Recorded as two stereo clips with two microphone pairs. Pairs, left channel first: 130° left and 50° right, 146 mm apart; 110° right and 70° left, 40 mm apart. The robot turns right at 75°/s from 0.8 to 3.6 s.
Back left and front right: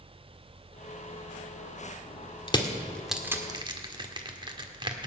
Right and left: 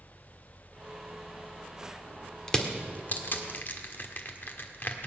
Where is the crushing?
Straight behind, 1.6 m; by 5.1 s 100° right, 1.6 m.